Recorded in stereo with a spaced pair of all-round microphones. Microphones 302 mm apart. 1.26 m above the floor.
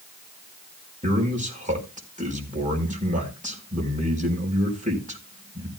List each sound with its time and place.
1.0 s a man speaking: 25° right (ahead or behind), 4.5 m